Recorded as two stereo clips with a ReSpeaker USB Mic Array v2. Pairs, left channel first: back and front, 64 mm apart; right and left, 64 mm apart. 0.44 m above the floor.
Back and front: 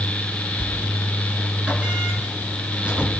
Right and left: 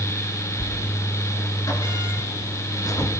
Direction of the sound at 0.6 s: 75° right.